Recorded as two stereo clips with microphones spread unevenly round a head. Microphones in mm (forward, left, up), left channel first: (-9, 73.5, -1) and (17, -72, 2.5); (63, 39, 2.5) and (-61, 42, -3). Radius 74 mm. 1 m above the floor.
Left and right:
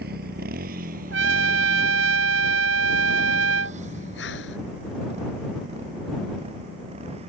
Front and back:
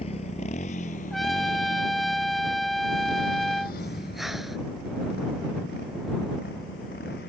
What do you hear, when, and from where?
0.0 s a motorcycle: 55° right; by 7.3 s 30° right
1.1 s a trumpet: 90° right
3.8 s breathing: 90° left